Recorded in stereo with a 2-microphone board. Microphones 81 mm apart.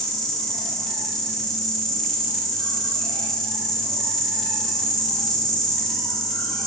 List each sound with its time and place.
0.0 s an insect: 5° left (ahead or behind), 1.1 m